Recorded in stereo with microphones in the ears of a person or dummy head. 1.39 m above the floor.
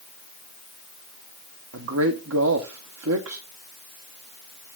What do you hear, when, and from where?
1.7 s a man speaking: 80° right, 0.9 m